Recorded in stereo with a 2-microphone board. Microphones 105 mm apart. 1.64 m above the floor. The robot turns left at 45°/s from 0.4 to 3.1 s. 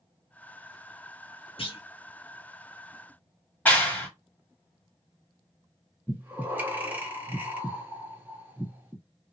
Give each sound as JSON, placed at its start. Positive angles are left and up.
{"t": 1.6, "sound": "a clunk", "side_deg": 60, "distance_m": 0.8}
{"t": 3.6, "sound": "a clap", "side_deg": 15, "distance_m": 1.2}
{"t": 6.1, "sound": "breathing", "side_deg": -15, "distance_m": 0.8}